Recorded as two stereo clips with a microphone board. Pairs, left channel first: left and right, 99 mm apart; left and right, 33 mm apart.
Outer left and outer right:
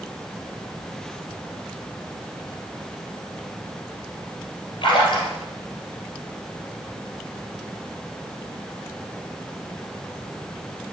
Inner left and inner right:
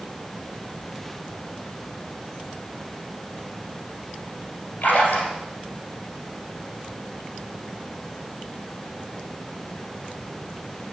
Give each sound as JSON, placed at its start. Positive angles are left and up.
{"t": 4.8, "sound": "a splash", "side_deg": 55, "distance_m": 2.5}